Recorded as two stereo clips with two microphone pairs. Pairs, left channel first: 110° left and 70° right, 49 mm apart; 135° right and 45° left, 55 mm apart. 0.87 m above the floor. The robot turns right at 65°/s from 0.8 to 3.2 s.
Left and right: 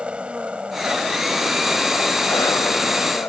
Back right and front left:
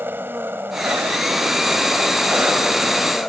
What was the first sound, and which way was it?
An engine running, straight ahead.